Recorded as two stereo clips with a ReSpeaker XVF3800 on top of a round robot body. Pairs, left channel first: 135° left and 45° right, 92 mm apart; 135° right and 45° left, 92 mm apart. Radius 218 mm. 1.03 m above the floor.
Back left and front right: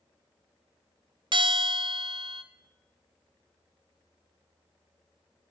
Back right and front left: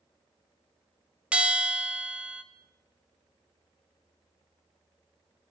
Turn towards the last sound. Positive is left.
turn(degrees=-30)